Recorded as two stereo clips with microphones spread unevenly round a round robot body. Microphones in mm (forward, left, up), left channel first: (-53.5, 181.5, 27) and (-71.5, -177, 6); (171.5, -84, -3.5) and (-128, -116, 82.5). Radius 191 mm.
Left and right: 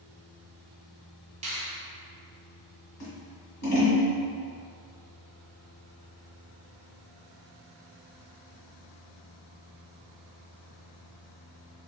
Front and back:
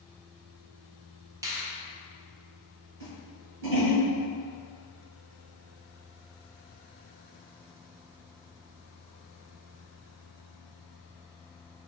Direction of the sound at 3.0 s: 120° left.